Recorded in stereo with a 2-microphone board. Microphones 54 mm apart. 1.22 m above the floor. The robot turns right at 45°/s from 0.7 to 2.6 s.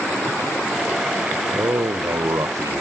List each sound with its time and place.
1.5 s a man speaking: 115° right, 0.8 m; by 2.8 s 65° right, 0.8 m